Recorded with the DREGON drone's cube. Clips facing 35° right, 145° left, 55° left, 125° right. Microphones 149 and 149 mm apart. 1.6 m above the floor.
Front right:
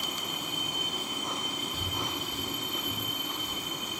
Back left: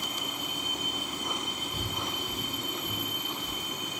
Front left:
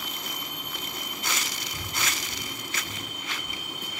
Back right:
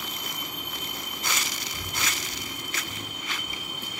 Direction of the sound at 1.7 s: 100° left.